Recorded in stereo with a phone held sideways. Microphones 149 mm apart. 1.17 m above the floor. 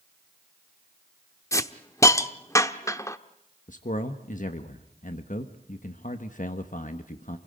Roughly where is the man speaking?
Left.